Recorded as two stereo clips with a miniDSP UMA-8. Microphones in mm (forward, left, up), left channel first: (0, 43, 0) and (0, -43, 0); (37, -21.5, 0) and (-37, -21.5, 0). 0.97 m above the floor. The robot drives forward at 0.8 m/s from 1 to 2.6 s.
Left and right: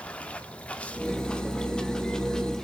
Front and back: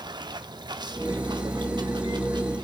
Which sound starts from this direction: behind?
Running water, at 0.0 s.